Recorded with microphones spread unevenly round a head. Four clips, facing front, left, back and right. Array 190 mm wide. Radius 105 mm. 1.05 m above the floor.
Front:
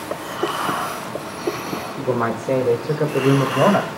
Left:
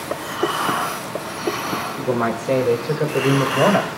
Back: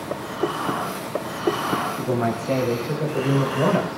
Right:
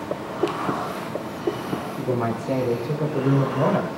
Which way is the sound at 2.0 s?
25° left.